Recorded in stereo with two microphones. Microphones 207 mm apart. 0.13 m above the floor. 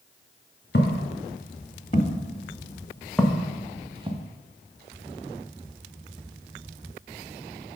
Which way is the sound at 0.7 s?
55° left (ahead or behind).